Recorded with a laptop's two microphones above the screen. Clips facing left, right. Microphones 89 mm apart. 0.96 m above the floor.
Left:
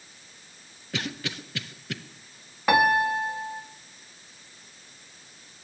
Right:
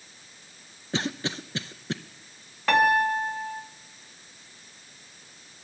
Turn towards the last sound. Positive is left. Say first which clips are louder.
# even
turn(degrees=15)  # may be behind; listen again after turning